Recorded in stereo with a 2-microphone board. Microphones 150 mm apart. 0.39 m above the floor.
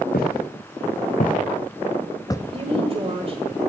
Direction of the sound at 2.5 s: 40° right (ahead or behind).